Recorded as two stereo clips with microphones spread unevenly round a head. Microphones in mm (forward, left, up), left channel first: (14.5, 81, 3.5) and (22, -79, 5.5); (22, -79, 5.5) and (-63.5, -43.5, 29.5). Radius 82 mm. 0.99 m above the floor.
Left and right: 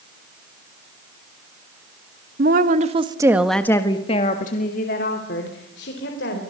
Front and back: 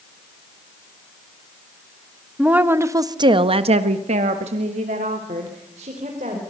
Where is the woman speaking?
120° right, 2 m; by 6.4 s 115° left, 5 m.